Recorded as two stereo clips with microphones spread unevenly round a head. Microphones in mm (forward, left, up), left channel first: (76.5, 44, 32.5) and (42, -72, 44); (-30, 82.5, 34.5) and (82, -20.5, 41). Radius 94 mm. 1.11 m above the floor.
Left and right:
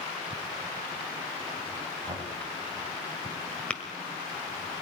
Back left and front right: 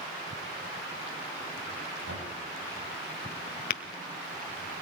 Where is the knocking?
55° right, 6.5 m.